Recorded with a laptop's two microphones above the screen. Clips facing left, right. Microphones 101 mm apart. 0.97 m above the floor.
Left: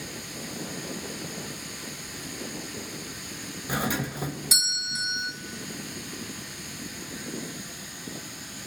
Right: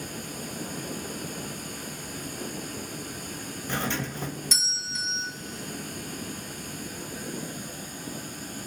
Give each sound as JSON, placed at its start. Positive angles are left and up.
{"t": 0.0, "sound": "running water", "side_deg": -45, "distance_m": 1.5}
{"t": 3.7, "sound": "a doorbell", "side_deg": 10, "distance_m": 1.5}